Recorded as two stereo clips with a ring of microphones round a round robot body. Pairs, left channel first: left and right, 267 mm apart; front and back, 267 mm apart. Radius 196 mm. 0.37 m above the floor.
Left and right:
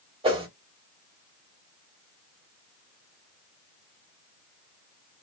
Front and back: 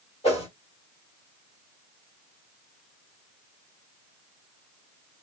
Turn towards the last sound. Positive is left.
turn(degrees=-40)